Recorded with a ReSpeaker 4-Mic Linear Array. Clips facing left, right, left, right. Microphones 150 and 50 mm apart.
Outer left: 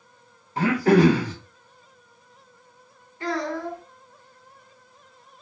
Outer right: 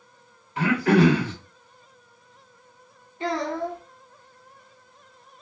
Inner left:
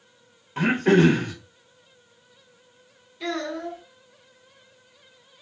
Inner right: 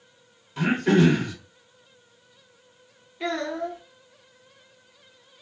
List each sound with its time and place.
0.6 s throat clearing: 35° left (ahead or behind), 0.7 m
3.2 s a child speaking: 25° right (ahead or behind), 0.9 m